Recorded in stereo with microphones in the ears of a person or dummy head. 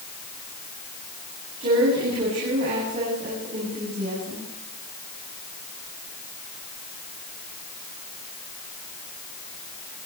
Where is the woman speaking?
40° right (ahead or behind), 9 m.